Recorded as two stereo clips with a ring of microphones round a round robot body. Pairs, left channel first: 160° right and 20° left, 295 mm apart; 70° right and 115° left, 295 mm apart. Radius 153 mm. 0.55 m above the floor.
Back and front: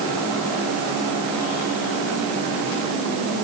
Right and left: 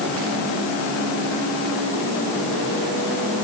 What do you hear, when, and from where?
Only background noise.